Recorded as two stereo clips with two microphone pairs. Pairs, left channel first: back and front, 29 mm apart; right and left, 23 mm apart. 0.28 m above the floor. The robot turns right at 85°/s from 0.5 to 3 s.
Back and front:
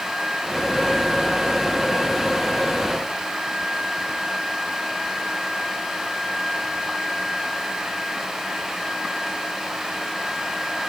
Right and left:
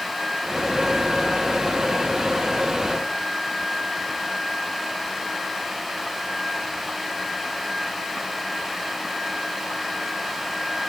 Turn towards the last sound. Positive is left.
No sound to turn to.